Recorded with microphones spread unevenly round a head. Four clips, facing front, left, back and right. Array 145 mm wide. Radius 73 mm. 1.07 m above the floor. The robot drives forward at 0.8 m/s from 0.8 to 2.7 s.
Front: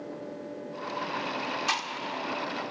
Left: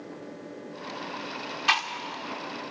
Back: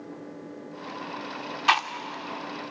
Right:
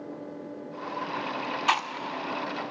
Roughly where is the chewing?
Behind right.